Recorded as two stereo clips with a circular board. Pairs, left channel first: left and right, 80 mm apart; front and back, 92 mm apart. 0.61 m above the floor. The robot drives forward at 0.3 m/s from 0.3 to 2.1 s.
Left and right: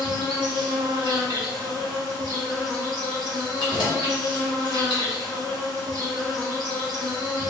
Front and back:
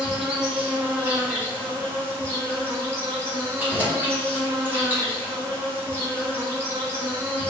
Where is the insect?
95° right, 1.2 m; by 7.5 s 120° right, 1.3 m.